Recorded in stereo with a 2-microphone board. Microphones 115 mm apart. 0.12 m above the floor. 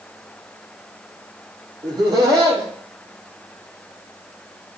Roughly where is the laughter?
Right.